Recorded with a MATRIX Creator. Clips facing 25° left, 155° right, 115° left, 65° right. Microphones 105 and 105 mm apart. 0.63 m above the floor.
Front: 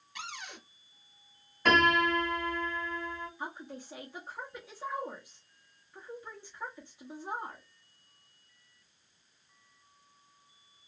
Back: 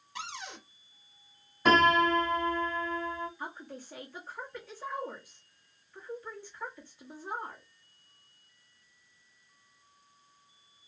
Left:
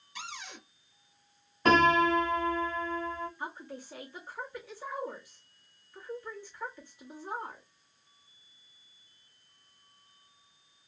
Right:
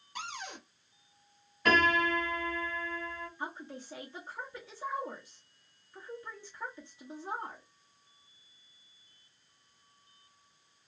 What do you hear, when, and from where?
0.1 s a cupboard door: 100° right, 1.0 m
1.6 s a piano: 135° left, 1.3 m
3.4 s a woman speaking: 30° right, 0.9 m